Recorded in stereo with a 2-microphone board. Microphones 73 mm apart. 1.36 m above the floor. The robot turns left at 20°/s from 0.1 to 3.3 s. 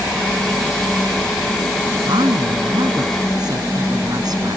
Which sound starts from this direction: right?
A woman speaking, at 2.0 s.